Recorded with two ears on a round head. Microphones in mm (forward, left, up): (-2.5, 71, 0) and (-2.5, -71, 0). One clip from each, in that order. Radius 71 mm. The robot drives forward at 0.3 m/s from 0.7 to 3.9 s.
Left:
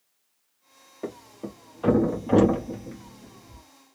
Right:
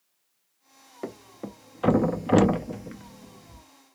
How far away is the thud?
About 0.7 m.